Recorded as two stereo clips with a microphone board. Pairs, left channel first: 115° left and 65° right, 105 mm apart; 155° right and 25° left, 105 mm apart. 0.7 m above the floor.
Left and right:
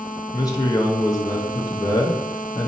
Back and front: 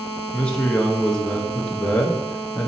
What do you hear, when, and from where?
0.3 s a man speaking: 130° left, 0.6 m